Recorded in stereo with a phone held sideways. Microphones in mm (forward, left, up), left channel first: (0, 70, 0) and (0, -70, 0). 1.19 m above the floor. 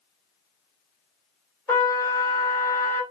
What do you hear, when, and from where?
1.7 s a trumpet: 20° left (ahead or behind), 1.8 m